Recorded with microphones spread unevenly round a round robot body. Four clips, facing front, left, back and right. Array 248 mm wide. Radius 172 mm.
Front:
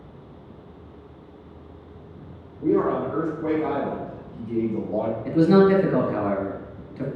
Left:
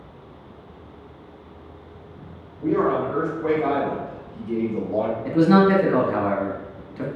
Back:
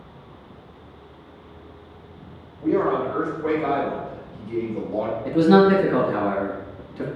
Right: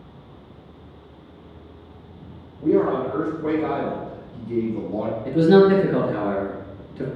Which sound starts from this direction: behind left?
A man speaking, at 5.2 s.